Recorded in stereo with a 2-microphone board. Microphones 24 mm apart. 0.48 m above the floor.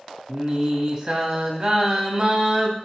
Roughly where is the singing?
Right.